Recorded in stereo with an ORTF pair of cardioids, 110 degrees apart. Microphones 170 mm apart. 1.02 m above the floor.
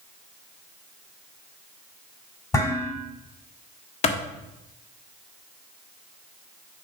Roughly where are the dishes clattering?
Ahead.